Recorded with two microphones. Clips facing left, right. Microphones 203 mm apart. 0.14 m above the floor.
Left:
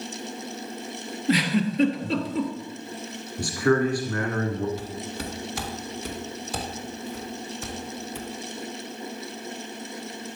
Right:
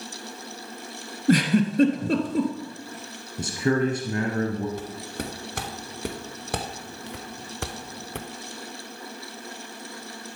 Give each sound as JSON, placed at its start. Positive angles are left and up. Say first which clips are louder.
{"t": 1.3, "sound": "a giggle", "louder": "right 3 dB", "side_deg": -50, "distance_m": 1.4}
{"t": 3.4, "sound": "a man speaking", "louder": "left 2 dB", "side_deg": -20, "distance_m": 1.5}
{"t": 4.8, "sound": "footsteps", "louder": "even", "side_deg": -55, "distance_m": 2.5}